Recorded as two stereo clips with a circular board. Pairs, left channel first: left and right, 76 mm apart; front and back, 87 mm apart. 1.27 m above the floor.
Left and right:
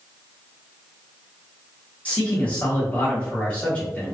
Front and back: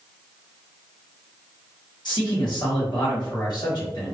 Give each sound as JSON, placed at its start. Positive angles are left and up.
{"t": 2.0, "sound": "a man speaking", "azimuth_deg": 20, "distance_m": 1.3}